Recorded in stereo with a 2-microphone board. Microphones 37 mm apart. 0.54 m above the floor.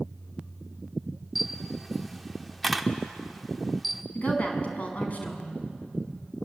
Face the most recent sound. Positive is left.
turn(degrees=40)  # may be behind; listen again after turning